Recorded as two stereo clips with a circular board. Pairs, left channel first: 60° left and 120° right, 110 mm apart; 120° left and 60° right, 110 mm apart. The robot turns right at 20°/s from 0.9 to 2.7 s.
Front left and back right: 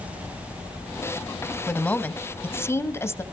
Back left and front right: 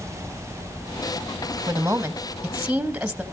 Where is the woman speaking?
Straight ahead, 1.1 m; by 3.2 s 20° left, 1.1 m.